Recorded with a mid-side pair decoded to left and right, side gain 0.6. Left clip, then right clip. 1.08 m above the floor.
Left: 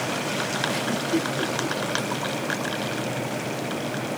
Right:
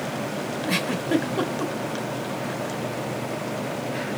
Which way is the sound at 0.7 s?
70° right.